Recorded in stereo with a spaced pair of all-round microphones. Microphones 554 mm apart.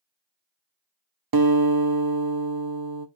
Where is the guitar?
40° right (ahead or behind), 0.7 m.